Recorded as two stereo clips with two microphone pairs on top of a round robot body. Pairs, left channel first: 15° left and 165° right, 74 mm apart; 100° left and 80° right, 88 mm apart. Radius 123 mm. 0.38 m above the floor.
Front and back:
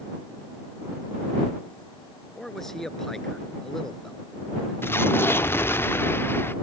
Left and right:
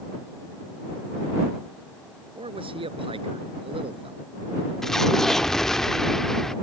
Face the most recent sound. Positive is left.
turn(degrees=15)